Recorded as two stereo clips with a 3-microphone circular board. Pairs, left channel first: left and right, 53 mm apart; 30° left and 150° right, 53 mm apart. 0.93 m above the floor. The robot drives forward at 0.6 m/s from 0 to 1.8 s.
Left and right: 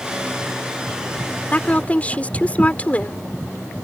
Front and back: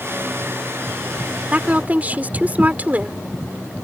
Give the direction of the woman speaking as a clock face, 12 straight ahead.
7 o'clock.